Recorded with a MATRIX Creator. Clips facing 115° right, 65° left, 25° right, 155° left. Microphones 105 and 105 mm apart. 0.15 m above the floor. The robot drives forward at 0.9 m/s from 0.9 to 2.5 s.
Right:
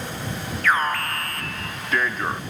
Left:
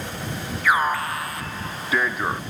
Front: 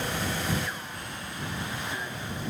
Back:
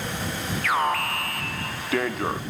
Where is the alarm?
145° left; by 2.4 s 150° left.